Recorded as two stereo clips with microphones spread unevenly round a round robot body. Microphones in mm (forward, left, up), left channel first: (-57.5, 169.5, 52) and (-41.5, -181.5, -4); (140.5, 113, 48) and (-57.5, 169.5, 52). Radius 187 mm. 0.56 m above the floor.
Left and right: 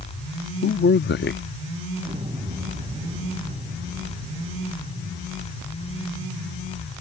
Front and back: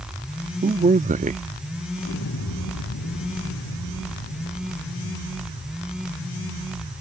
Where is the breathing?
No breathing in this recording.